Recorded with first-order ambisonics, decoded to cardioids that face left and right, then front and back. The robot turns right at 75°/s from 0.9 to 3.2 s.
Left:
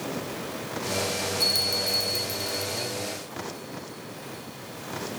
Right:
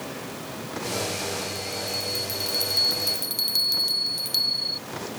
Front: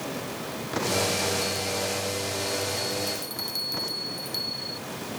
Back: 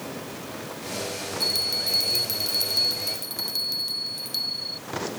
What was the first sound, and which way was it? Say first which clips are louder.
A bell: left 6 dB, back 3 dB; 125° left.